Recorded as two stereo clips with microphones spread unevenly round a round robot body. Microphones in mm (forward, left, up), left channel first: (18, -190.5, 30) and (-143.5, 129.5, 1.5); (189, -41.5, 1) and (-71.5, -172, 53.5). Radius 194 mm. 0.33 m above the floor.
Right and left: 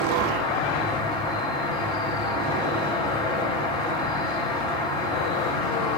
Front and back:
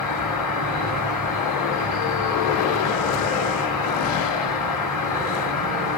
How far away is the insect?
About 8.5 m.